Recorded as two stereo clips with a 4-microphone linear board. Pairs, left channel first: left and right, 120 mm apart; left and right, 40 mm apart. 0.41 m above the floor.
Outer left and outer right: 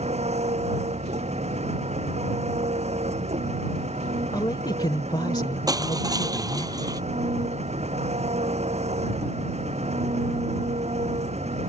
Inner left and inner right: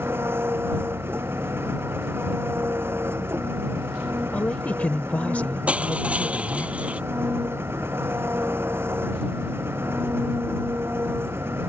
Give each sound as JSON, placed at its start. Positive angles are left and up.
{"t": 0.0, "sound": "an engine running", "side_deg": -60}
{"t": 4.3, "sound": "a woman speaking", "side_deg": 35}
{"t": 5.7, "sound": "crushing", "side_deg": -30}